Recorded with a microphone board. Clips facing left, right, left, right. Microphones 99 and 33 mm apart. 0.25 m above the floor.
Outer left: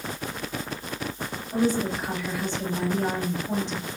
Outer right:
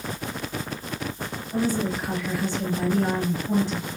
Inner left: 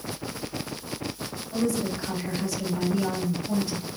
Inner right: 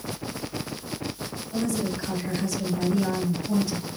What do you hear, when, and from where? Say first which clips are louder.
1.5 s a woman speaking: outer left 1 dB, inner left 1 dB; 20° left (ahead or behind), 0.9 m